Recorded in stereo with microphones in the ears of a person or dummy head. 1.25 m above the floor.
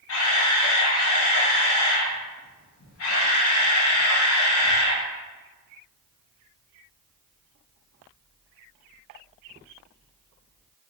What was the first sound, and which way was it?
A camera shutter, 65° left (ahead or behind).